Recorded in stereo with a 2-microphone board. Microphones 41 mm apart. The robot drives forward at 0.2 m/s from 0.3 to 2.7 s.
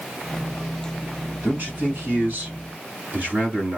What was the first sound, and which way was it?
A man speaking, 40° right (ahead or behind).